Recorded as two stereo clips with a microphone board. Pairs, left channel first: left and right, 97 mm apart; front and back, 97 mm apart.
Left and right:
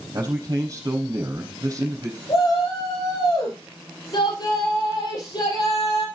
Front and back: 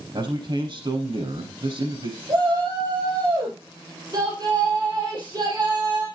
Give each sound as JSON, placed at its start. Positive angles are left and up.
{"t": 0.1, "sound": "a man speaking", "azimuth_deg": -140, "distance_m": 4.0}
{"t": 2.3, "sound": "a shout", "azimuth_deg": 130, "distance_m": 5.5}